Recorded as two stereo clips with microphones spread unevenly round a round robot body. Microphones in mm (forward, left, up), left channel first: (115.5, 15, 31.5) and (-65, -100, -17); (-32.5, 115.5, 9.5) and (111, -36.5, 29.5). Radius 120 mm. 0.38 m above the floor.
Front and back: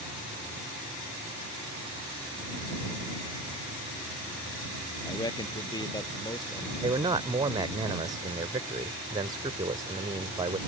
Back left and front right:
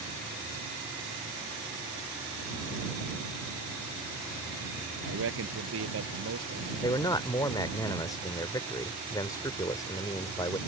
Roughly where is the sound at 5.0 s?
Ahead right.